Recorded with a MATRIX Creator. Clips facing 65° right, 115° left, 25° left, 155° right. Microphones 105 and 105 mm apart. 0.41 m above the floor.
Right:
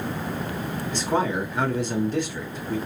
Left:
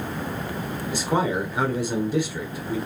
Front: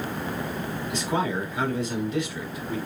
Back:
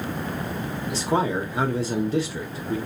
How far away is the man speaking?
About 0.9 m.